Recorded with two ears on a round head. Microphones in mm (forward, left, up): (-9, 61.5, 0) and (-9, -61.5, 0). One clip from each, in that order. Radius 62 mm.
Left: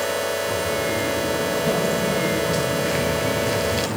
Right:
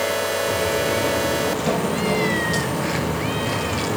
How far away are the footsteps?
About 4.5 m.